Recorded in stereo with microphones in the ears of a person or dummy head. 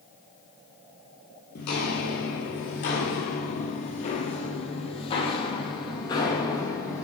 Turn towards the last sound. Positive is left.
turn(degrees=20)  # may be behind; listen again after turning